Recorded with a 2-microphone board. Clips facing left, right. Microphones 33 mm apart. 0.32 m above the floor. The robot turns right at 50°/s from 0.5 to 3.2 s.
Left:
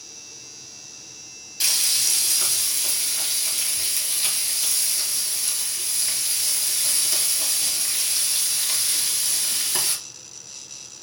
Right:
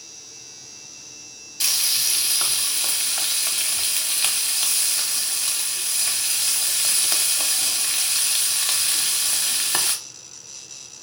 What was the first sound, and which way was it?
Frying, 175° left.